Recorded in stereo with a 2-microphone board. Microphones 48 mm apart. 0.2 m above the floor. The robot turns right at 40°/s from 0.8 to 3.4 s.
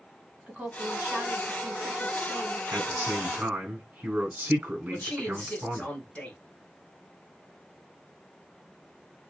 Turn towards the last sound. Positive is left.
turn(degrees=25)  # may be behind; listen again after turning